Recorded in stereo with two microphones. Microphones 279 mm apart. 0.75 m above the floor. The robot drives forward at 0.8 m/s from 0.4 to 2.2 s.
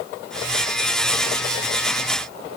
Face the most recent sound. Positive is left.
No sound to turn to.